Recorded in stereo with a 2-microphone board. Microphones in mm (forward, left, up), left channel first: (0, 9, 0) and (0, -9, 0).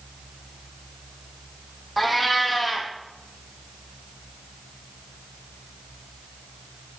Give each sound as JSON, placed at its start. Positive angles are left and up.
{"t": 2.0, "sound": "a cat meowing", "side_deg": 0, "distance_m": 1.5}